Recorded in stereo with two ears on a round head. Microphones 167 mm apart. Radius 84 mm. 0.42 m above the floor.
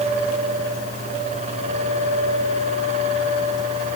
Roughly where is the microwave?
I don't hear a microwave.